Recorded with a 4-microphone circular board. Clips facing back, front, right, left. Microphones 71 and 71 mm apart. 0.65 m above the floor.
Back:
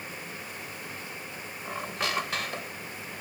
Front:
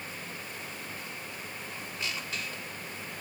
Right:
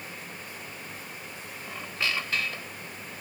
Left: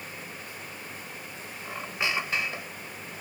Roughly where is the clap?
I don't hear a clap.